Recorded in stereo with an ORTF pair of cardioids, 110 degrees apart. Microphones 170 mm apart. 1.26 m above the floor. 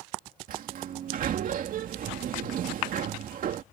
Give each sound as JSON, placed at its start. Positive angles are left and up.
{"t": 0.5, "sound": "a sliding door", "azimuth_deg": -55}